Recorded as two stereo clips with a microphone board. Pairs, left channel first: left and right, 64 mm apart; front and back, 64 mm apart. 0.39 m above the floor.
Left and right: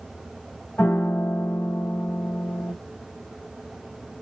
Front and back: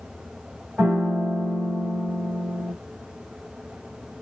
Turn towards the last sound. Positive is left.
turn(degrees=120)